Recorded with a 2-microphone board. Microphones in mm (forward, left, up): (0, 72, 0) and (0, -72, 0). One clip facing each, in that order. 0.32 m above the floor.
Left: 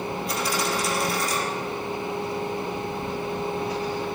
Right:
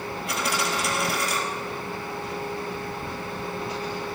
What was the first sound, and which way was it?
A dropped coin, 65° right (ahead or behind).